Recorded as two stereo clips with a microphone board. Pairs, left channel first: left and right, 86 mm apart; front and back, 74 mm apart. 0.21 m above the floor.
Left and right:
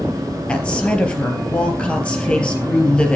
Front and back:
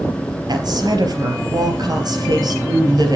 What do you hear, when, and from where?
0.5 s a woman speaking: 165° left, 3.5 m